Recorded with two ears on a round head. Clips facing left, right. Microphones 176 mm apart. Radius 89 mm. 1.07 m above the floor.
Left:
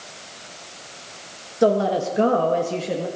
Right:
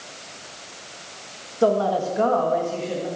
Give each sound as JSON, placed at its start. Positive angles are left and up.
{"t": 1.6, "sound": "a woman speaking", "side_deg": 20, "distance_m": 1.7}